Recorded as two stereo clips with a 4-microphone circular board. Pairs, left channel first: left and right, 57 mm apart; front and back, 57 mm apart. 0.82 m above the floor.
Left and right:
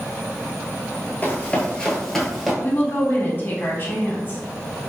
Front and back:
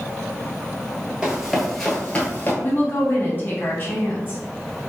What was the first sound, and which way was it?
Running footsteps, 115° left.